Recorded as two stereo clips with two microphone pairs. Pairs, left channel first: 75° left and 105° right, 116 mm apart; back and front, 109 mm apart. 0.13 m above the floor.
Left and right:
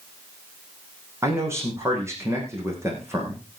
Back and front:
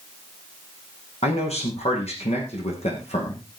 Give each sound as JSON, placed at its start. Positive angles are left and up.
{"t": 1.2, "sound": "a man speaking", "azimuth_deg": -170, "distance_m": 6.5}